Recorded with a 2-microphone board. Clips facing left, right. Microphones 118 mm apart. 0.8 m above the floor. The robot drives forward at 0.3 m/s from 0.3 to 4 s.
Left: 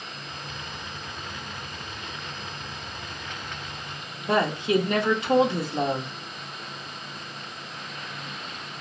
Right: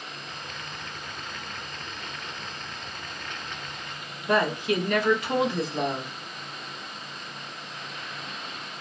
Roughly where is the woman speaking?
Left.